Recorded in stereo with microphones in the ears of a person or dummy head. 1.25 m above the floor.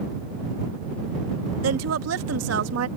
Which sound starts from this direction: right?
A woman speaking, at 1.6 s.